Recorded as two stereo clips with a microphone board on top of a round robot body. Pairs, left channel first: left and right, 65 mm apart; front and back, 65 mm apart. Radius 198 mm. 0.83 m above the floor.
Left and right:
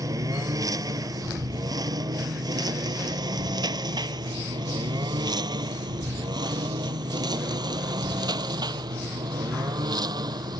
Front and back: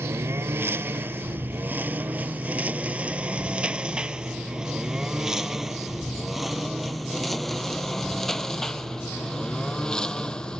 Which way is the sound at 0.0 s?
125° right.